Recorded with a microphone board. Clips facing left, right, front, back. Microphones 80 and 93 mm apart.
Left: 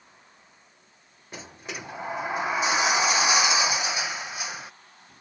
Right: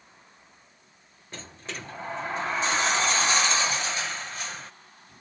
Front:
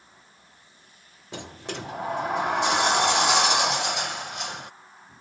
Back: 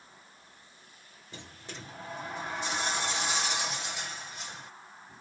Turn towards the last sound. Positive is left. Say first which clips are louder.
# left 1 dB, front 11 dB
turn(degrees=10)